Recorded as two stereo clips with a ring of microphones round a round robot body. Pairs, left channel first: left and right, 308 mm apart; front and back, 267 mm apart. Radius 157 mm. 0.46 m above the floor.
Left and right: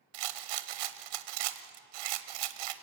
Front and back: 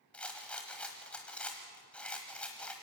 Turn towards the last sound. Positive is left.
turn(degrees=-85)